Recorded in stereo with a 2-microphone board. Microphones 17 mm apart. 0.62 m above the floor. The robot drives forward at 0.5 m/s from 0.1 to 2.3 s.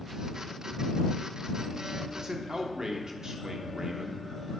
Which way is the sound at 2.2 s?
45° right (ahead or behind).